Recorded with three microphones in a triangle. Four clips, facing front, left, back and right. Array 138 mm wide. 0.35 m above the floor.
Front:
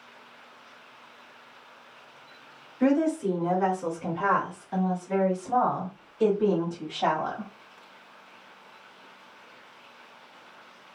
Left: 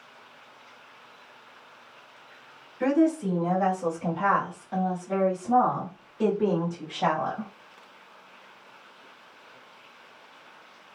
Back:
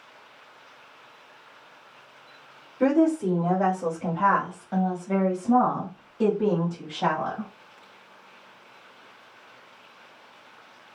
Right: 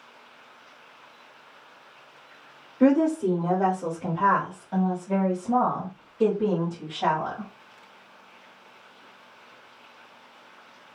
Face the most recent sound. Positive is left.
turn(degrees=135)